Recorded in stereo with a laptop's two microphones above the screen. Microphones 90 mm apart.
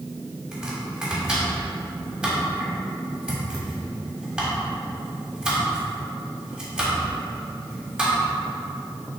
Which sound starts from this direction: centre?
Chopping, at 0.5 s.